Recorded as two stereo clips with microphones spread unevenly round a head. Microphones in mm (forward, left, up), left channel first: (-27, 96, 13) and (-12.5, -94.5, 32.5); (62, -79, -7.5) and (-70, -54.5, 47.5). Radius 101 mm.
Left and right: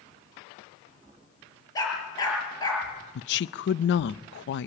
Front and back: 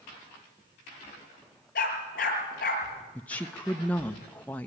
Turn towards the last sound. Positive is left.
turn(degrees=65)